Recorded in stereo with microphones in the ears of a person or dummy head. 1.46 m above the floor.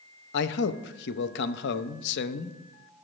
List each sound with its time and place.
0.3 s a man speaking: 65° left (ahead or behind), 0.6 m